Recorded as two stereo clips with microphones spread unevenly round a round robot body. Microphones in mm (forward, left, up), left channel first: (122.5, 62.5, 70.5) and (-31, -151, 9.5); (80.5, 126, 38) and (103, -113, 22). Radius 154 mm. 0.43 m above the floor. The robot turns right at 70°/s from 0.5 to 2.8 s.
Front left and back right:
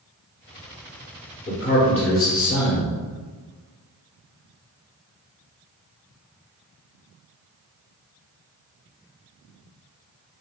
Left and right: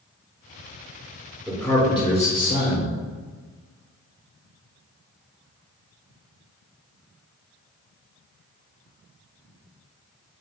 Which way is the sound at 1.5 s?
5° right.